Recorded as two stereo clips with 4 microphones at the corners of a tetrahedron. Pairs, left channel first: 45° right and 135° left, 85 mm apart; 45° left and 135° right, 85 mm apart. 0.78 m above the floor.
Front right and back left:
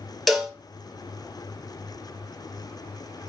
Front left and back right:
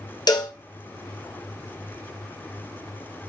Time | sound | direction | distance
0.3 | a cowbell | 45° left | 0.6 m